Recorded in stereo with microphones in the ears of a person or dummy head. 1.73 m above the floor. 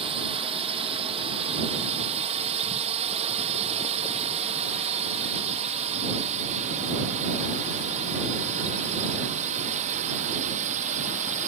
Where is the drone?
30° right (ahead or behind); by 11.5 s 40° right (ahead or behind).